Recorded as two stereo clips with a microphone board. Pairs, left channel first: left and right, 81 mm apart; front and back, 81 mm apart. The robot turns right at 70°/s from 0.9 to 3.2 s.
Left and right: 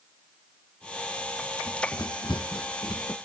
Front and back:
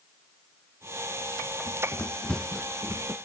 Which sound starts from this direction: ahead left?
Running footsteps, at 1.7 s.